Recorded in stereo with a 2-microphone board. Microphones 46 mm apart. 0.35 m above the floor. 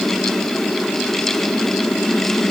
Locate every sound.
Only background noise.